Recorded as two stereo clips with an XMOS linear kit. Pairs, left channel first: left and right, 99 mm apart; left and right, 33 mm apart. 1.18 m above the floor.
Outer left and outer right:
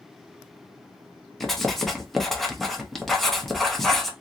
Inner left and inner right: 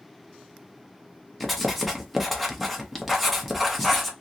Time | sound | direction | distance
1.4 | writing | centre (ahead or behind) | 0.7 m